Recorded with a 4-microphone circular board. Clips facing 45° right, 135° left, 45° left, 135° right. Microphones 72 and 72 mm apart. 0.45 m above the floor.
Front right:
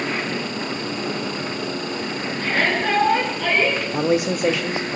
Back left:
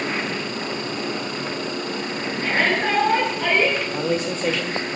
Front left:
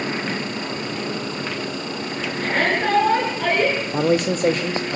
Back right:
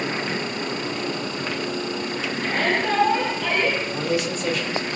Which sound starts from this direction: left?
A shout, at 2.4 s.